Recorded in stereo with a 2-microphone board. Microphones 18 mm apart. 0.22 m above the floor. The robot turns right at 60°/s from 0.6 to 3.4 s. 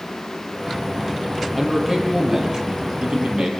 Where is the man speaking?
160° left, 7 m; by 3.5 s 90° right, 7 m.